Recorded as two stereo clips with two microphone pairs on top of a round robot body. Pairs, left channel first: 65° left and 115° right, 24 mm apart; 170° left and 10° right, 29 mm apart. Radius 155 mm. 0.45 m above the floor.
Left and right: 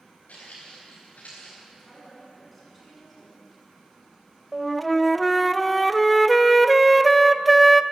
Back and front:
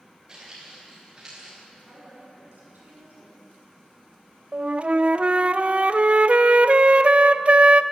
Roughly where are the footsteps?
Ahead left.